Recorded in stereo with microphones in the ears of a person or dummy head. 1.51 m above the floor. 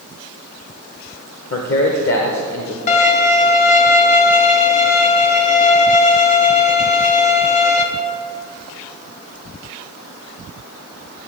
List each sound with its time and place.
1.5 s a man speaking: 60° left (ahead or behind), 1.2 m
2.9 s a violin: 45° left (ahead or behind), 1.4 m